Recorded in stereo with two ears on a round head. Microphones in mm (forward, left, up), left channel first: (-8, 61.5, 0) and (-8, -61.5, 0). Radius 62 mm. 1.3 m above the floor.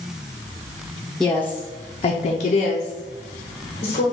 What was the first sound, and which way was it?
A woman speaking, 5° left (ahead or behind).